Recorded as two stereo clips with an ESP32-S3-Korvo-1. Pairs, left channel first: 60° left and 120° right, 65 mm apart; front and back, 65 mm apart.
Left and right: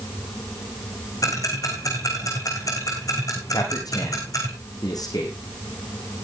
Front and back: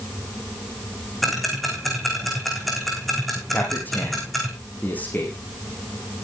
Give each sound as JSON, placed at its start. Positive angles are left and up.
{"t": 1.2, "sound": "ticking", "azimuth_deg": 90, "distance_m": 4.0}
{"t": 3.5, "sound": "a man speaking", "azimuth_deg": 60, "distance_m": 5.0}